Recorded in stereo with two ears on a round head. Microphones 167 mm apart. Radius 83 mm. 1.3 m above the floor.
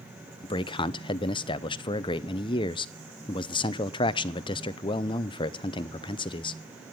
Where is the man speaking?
25° left (ahead or behind), 0.6 m.